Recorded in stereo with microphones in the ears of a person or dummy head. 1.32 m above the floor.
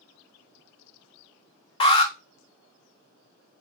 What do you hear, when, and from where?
1.8 s an alarm: 30° left (ahead or behind), 1.1 m